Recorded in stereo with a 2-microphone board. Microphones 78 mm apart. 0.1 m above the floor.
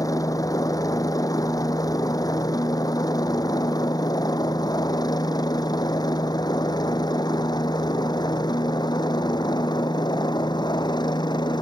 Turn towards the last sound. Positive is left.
turn(degrees=65)  # may be behind; listen again after turning